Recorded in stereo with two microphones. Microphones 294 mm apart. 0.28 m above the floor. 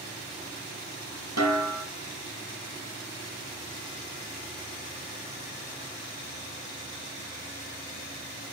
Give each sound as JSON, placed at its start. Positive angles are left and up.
{"t": 1.4, "sound": "a snare drum", "side_deg": -80, "distance_m": 1.7}